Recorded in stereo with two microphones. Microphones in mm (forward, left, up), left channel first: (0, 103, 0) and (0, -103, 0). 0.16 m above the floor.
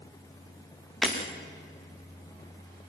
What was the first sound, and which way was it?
Breaking glass, 5° left (ahead or behind).